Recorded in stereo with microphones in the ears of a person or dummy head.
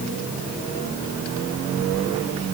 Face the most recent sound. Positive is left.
No sound to turn to.